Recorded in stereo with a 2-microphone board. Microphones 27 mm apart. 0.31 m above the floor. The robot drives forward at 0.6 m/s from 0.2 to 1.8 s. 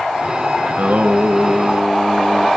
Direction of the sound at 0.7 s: 80° right.